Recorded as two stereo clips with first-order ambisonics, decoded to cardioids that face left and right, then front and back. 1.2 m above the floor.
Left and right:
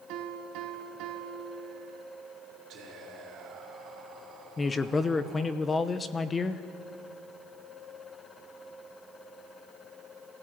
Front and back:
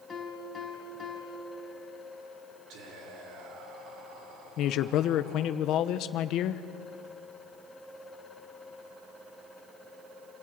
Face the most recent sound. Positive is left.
turn(degrees=20)